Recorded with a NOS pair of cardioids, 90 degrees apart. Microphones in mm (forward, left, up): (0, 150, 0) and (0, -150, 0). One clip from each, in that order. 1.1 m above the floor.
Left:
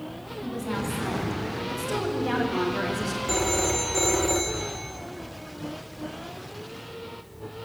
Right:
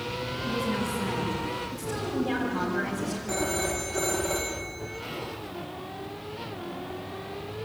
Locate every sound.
0.4 s a woman speaking: 65° left, 8 m; by 3.2 s 75° left, 4.5 m
3.3 s a phone ringing: 35° left, 2 m